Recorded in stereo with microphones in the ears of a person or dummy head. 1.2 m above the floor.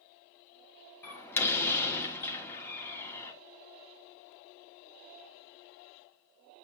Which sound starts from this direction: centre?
A door slam, at 1.0 s.